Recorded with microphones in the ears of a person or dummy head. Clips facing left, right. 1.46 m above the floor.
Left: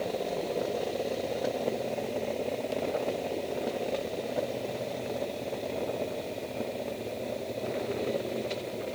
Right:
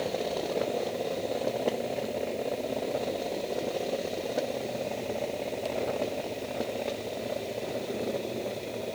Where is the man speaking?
I don't hear a man speaking.